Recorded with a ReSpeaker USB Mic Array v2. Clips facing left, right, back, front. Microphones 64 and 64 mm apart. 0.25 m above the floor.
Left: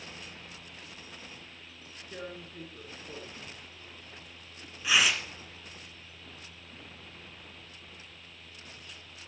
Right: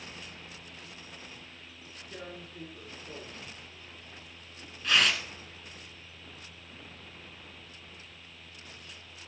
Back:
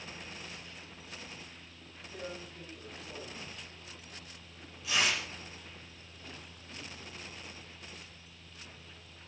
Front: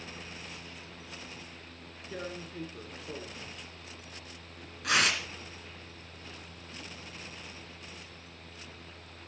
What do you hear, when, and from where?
2.1 s tearing paper: 10° left, 2.5 m